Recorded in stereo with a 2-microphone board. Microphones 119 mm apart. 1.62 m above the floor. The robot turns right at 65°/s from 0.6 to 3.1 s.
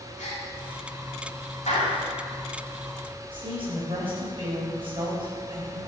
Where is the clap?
80° left, 7.5 m; by 2.0 s 75° left (ahead or behind), 7.5 m.